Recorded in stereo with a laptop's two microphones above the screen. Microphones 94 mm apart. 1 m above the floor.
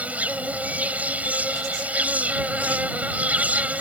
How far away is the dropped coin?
I don't hear a dropped coin.